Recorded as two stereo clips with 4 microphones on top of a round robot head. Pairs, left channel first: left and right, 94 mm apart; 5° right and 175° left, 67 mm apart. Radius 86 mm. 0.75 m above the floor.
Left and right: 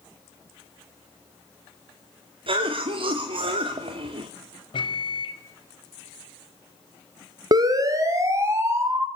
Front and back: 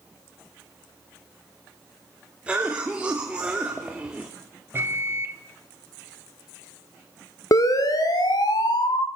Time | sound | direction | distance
2.5 | a cough | 105° right | 2 m
4.7 | a microwave | 120° left | 3 m
7.5 | a siren | 40° right | 2 m